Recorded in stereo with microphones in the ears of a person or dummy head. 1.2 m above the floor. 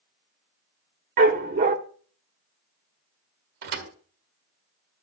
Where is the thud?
55° right (ahead or behind), 1.5 m.